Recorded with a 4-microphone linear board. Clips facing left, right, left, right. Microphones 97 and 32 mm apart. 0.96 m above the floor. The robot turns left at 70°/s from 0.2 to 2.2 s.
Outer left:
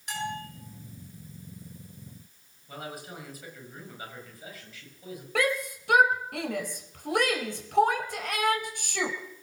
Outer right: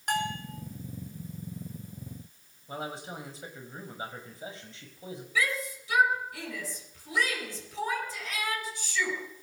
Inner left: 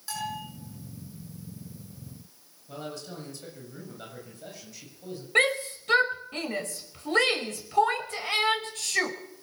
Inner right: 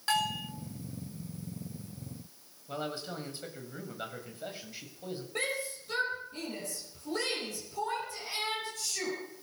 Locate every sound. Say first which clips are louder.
0.1 s a bell: outer right 3 dB, inner right 4 dB; 50° right (ahead or behind), 6.5 m; by 0.5 s 30° right (ahead or behind), 6.5 m
2.7 s a man speaking: outer right 3 dB, inner right 2 dB; 30° right (ahead or behind), 7 m
5.3 s a shout: outer left 4 dB, inner left 12 dB; 65° left (ahead or behind), 4.5 m